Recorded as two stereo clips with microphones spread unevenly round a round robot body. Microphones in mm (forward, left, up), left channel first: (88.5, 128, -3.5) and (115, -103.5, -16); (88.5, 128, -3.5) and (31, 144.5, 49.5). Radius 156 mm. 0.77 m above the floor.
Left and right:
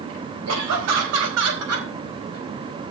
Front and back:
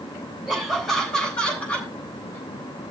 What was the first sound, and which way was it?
Laughter, 105° right.